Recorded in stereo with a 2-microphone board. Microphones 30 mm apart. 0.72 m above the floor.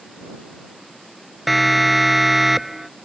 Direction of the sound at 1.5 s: 5° right (ahead or behind).